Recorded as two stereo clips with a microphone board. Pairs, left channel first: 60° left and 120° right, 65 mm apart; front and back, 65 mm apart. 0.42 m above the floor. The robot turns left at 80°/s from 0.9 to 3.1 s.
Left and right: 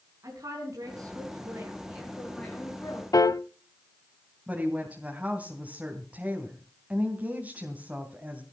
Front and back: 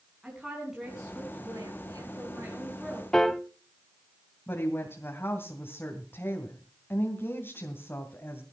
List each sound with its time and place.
0.2 s a woman speaking: 95° right, 5 m; by 3.0 s 95° left, 5 m
3.1 s a piano: 80° left, 0.7 m
4.5 s a woman speaking: 50° right, 2.5 m